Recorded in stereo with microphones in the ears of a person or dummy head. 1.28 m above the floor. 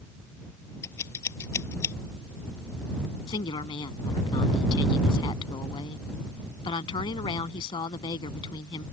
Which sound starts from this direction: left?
A woman speaking, at 3.3 s.